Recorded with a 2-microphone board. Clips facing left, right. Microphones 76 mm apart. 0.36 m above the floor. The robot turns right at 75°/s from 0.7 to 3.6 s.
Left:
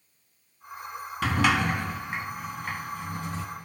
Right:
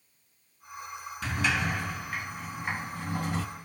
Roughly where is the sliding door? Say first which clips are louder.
Left 6 dB; left.